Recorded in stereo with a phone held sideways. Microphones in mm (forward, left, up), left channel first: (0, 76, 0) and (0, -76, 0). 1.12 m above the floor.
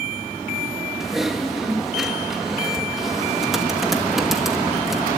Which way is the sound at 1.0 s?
Centre (ahead or behind).